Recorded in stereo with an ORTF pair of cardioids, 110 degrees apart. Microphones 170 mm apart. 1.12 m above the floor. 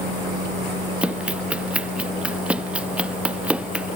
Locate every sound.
1.0 s running footsteps: 5° right